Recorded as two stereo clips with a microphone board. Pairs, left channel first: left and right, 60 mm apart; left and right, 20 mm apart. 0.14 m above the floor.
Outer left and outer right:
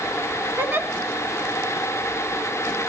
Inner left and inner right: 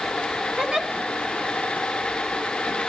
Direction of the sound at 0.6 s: 35° right (ahead or behind).